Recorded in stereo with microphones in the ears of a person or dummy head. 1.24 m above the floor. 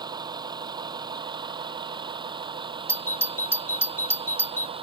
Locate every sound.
0.0 s a vehicle: 25° right (ahead or behind); by 4.8 s 30° right (ahead or behind)
2.9 s a doorbell: 10° left (ahead or behind)